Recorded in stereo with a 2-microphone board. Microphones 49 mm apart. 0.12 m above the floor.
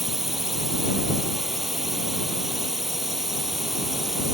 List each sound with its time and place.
0.0 s a drone: 5° right (ahead or behind)